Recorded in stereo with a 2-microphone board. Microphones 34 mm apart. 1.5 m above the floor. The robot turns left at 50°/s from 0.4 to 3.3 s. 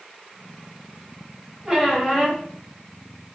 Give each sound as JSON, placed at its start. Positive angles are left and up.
{"t": 1.6, "sound": "a squeak", "azimuth_deg": -155, "distance_m": 2.5}